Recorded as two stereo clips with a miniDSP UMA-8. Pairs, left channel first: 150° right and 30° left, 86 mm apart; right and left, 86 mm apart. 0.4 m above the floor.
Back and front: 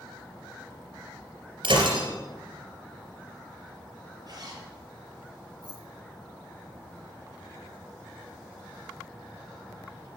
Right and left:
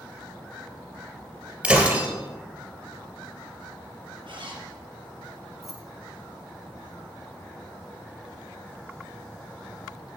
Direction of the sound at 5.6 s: Straight ahead.